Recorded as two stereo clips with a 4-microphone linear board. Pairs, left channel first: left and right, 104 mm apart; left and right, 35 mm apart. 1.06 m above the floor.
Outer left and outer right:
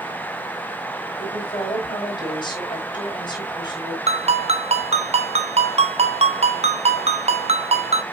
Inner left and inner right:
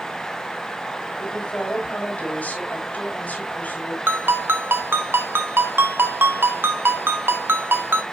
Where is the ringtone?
75° right (ahead or behind), 1.1 m.